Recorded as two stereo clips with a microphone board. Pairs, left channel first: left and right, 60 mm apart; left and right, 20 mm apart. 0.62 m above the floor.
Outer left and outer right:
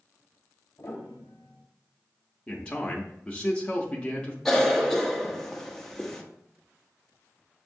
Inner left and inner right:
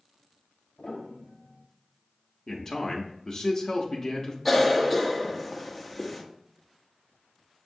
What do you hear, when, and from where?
0.8 s a piano: 40° left (ahead or behind), 1.5 m
2.5 s a man speaking: 20° left (ahead or behind), 0.7 m
4.5 s a cough: 5° left (ahead or behind), 0.8 m